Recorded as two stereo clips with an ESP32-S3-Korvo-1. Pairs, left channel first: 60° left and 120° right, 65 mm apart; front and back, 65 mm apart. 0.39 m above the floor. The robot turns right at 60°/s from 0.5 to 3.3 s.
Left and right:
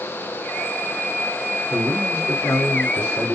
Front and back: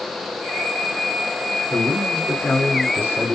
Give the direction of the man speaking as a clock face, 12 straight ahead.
11 o'clock.